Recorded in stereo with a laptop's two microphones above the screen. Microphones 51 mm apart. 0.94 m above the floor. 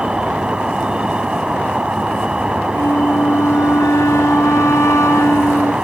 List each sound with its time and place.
0.0 s an insect: 20° right (ahead or behind)
2.7 s a flute: 75° left (ahead or behind)